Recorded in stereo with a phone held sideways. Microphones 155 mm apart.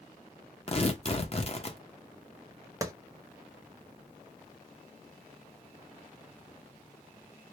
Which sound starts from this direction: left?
Tearing paper, at 0.7 s.